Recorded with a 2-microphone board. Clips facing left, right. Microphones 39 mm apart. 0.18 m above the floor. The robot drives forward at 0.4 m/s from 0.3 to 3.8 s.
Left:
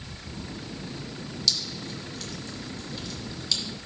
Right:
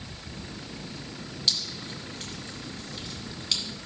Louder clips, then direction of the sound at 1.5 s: Even; 35° right (ahead or behind).